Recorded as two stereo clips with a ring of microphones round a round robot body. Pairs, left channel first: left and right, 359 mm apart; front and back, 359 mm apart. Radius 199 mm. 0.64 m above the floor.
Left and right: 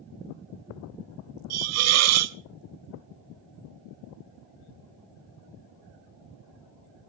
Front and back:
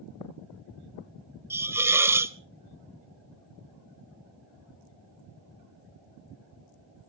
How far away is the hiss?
About 0.8 m.